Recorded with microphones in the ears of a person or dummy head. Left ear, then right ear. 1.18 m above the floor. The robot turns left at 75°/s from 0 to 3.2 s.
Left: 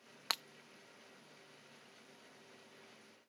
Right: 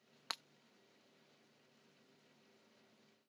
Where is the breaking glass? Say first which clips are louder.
Left 7 dB; 10° left (ahead or behind); by 0.4 s 20° left (ahead or behind).